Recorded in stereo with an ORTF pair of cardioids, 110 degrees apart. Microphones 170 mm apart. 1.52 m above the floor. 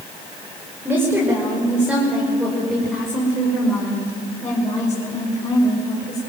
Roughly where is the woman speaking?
Ahead.